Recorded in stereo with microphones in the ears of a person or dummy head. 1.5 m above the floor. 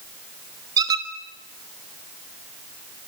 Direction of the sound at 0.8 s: 20° right (ahead or behind).